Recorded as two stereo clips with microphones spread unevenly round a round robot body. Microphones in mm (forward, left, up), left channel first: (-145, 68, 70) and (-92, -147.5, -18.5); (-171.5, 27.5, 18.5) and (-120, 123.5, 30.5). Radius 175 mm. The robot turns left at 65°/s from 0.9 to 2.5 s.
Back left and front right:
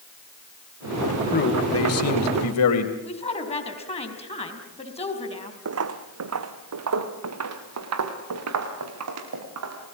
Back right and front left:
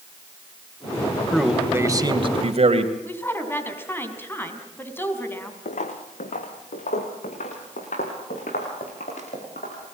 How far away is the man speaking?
About 3 m.